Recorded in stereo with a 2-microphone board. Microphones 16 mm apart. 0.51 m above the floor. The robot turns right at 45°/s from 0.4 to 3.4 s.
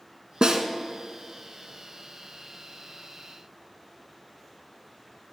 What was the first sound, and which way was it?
A snare drum, 75° right (ahead or behind).